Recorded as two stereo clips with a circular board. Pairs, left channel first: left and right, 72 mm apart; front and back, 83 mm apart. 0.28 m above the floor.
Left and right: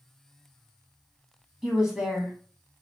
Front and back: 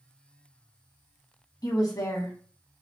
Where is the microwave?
No microwave in this recording.